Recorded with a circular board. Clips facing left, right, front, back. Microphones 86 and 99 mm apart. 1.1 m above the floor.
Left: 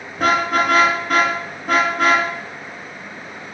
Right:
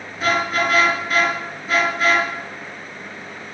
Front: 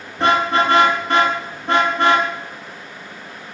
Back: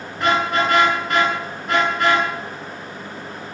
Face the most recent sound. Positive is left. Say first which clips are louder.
# left 3 dB, front 3 dB
turn(degrees=60)